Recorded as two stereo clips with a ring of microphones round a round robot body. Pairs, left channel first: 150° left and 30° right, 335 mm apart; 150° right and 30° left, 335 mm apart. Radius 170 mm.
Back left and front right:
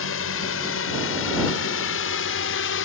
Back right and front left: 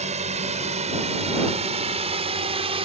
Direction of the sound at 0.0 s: 100° left.